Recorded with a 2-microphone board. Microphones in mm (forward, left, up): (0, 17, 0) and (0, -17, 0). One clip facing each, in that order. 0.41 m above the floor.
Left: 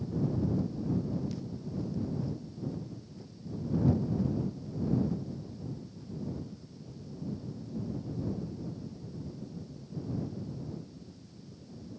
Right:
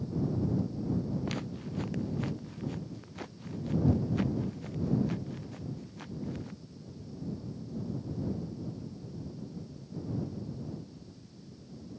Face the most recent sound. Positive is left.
turn(degrees=-85)